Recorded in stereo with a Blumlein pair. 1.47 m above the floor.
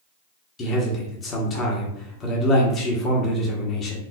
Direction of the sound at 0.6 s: 25° left.